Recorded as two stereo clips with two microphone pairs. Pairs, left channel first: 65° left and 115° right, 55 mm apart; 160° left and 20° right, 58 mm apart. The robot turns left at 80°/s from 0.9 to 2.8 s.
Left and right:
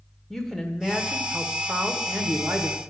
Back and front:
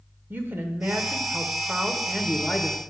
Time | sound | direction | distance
0.3 | a woman speaking | 10° right | 1.0 m